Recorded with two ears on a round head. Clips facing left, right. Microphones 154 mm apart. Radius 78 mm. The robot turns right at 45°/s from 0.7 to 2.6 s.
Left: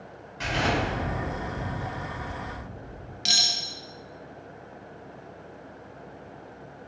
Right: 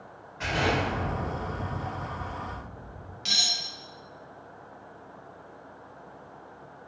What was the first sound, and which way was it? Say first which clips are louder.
An explosion: even; 40° left.